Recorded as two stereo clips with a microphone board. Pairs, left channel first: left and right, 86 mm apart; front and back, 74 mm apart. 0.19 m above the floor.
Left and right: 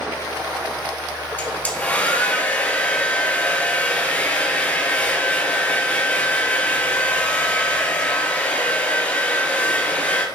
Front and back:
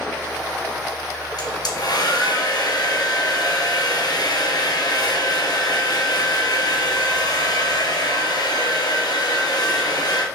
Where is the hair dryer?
20° left, 2.5 m.